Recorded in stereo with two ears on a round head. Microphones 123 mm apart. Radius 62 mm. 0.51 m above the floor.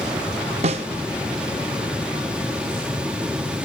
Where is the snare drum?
50° right (ahead or behind), 0.6 m.